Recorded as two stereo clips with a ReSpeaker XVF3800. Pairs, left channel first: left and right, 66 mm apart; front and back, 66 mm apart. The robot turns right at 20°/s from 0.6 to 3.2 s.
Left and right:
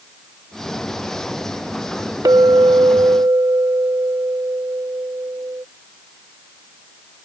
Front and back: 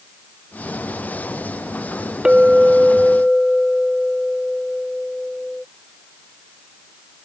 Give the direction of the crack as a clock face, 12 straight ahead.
No crack in this recording.